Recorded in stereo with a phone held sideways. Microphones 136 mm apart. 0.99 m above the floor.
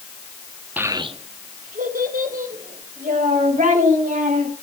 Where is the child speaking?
10° right (ahead or behind), 0.9 m; by 4.5 s 75° right (ahead or behind), 5 m.